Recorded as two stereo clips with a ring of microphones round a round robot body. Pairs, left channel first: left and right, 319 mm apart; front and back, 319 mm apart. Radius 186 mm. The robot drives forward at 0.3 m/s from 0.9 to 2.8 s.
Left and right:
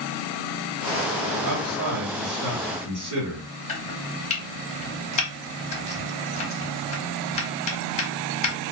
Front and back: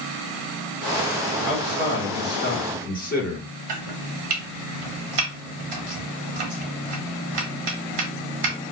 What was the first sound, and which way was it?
A man speaking, 45° right.